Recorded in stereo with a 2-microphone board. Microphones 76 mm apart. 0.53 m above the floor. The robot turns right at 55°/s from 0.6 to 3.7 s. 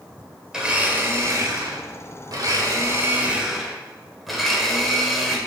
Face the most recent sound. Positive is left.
turn(degrees=0)